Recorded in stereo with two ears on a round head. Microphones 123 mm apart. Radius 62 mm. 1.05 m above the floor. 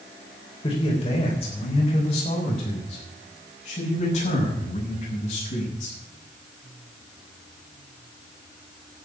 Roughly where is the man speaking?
Left.